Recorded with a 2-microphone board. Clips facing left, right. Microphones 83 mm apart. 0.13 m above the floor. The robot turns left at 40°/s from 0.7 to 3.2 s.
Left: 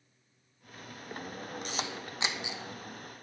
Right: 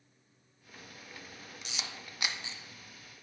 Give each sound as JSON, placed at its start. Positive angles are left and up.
{"t": 1.6, "sound": "a camera shutter", "side_deg": 50, "distance_m": 1.1}